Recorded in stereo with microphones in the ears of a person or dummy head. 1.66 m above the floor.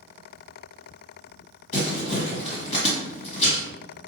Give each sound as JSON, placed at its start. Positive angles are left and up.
{"t": 1.7, "sound": "crumpling", "side_deg": 40, "distance_m": 1.8}